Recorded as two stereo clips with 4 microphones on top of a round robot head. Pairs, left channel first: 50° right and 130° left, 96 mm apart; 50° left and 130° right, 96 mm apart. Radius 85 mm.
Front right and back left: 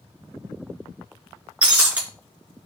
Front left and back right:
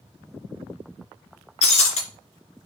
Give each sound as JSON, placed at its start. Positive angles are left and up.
{"t": 1.6, "sound": "breaking glass", "azimuth_deg": 55, "distance_m": 3.5}